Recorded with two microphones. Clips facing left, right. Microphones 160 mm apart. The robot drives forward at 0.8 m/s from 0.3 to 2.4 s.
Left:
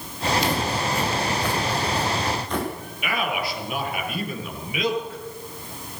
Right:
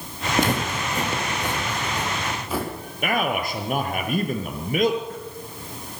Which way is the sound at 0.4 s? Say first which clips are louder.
Right 3 dB; 50° right (ahead or behind).